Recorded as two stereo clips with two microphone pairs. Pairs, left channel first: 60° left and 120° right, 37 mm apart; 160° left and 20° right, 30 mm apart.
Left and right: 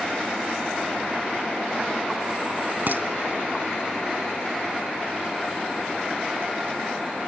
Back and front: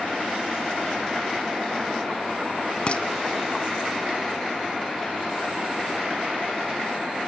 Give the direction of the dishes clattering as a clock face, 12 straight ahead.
5 o'clock.